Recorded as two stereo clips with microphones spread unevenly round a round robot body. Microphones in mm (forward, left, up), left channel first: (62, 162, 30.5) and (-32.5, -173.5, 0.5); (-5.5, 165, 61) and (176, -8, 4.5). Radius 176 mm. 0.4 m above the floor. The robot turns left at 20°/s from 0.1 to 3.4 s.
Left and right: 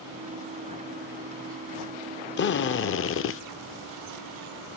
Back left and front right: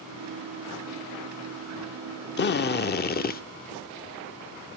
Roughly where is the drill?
Left.